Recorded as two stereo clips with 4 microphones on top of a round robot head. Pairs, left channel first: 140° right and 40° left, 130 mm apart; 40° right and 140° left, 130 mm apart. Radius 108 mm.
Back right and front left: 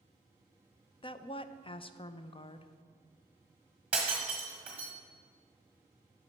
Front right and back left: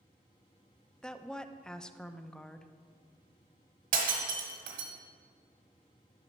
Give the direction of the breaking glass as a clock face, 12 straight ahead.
8 o'clock.